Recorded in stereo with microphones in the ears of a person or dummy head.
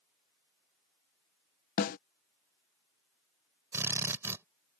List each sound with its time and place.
1.8 s a snare drum: 45° left (ahead or behind)
3.7 s a drill: 15° right (ahead or behind)